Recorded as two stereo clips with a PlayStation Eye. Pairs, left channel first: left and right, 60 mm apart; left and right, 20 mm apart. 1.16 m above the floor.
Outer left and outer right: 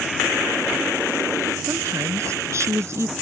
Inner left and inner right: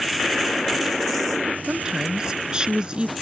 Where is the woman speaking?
55° right (ahead or behind); by 3.1 s 50° right (ahead or behind).